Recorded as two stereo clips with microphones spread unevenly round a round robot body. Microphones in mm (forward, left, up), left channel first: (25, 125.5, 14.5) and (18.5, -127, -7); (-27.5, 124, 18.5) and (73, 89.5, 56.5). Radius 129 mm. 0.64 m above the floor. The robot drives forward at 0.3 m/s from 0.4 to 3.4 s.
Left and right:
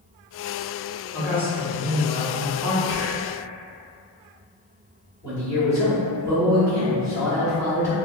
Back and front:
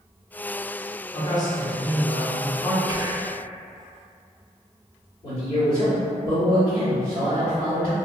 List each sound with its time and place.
1.1 s a man speaking: 175° left, 0.7 m
2.9 s whispering: 70° left, 0.9 m; by 3.4 s 90° left, 0.8 m
5.2 s a man speaking: 170° left, 1.4 m